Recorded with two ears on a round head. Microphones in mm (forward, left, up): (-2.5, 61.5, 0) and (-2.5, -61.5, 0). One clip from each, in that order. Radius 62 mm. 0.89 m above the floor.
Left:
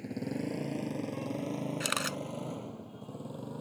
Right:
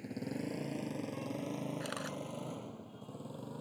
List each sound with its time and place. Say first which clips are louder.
0.0 s a motorcycle: left 4 dB; 10° right (ahead or behind)
1.8 s a camera shutter: left 8 dB; 50° left (ahead or behind)